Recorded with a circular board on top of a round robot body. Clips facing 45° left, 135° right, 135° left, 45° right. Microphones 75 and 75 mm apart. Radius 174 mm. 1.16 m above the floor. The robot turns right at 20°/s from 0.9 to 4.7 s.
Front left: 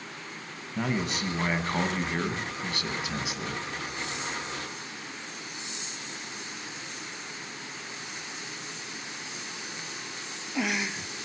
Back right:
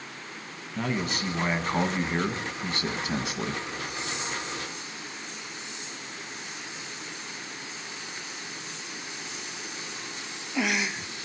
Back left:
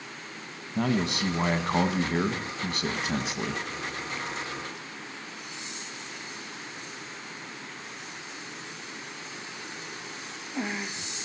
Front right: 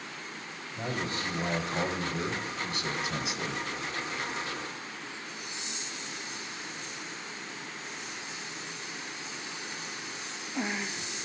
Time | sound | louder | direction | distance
0.8 | a man speaking | even, back left 7 dB | 125° left | 1.7 m